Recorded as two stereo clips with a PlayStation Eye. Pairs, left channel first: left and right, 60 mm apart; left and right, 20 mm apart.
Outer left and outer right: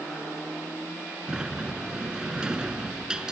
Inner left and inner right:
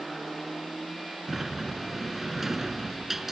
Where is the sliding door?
15° right (ahead or behind).